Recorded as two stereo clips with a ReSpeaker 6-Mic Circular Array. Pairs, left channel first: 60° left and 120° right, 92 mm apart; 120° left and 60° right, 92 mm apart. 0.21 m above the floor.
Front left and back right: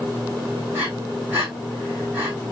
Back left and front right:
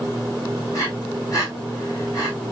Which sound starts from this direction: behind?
Breathing, at 0.7 s.